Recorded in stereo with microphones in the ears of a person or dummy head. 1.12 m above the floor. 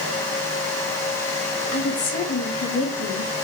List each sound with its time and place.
1.7 s a woman speaking: 75° left (ahead or behind), 2 m; by 3.3 s 50° left (ahead or behind), 2.5 m